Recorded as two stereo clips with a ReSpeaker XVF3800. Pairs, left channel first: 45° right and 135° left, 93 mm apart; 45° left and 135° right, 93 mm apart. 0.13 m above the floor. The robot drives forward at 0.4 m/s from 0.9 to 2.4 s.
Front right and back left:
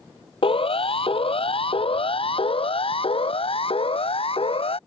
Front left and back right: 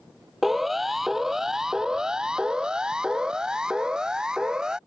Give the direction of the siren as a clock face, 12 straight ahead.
2 o'clock.